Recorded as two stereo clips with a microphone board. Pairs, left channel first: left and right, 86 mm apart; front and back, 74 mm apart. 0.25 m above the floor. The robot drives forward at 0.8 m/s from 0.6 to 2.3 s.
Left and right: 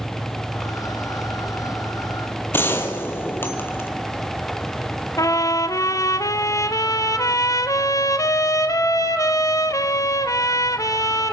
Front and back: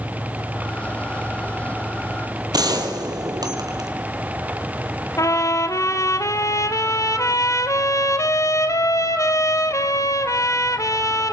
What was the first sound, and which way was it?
A gunshot, 155° left.